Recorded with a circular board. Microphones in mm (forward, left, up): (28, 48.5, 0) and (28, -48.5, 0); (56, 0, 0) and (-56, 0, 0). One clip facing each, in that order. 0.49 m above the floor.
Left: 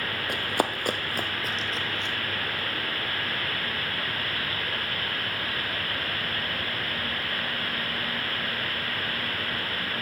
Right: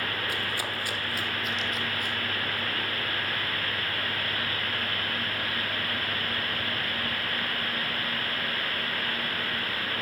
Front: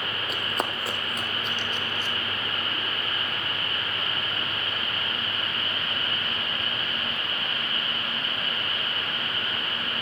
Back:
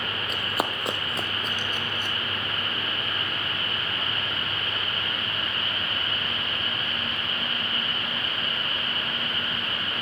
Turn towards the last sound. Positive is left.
turn(degrees=155)